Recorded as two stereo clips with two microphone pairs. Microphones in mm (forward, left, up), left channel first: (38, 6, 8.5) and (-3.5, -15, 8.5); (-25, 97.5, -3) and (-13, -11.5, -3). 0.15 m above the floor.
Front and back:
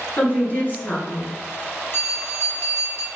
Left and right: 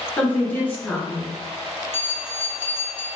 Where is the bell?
40° left, 0.9 m.